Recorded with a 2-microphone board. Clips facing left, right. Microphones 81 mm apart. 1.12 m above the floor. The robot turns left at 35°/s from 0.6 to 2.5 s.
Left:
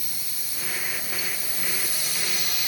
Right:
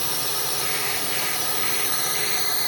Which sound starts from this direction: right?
A drone, at 0.0 s.